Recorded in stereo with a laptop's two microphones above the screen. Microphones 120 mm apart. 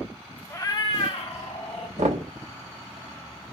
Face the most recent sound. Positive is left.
turn(degrees=-70)  # may be behind; listen again after turning